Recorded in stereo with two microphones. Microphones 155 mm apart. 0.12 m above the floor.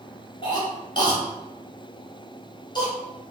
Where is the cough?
30° left (ahead or behind), 1.2 m.